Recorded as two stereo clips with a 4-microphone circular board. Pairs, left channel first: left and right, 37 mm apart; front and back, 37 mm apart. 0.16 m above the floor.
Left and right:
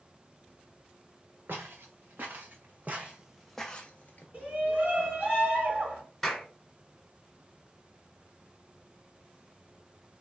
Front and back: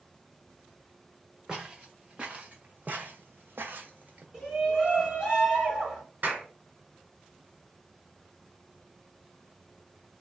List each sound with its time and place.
1.5 s footsteps: 105° right, 1.3 m; by 4.2 s 135° left, 0.7 m
4.3 s a shout: 115° right, 2 m
6.2 s a clap: 175° left, 1.6 m